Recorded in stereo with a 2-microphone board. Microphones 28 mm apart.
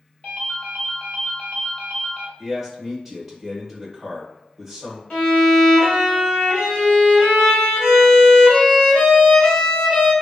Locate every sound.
0.2 s a ringtone: 40° left (ahead or behind), 1.6 m
2.4 s a man speaking: 5° left (ahead or behind), 1.1 m
5.1 s a violin: 35° left (ahead or behind), 1.6 m